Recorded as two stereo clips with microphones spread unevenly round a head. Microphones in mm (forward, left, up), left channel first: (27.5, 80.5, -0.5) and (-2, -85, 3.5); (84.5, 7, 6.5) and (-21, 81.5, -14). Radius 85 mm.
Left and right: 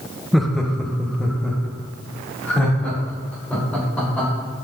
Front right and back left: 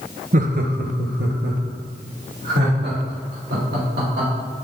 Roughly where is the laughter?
Behind.